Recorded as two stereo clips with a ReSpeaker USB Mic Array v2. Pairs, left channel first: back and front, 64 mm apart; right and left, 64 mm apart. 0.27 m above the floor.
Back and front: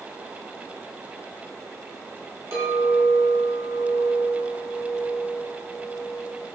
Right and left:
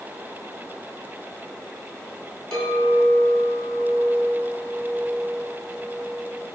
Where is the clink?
10° right, 1.5 m.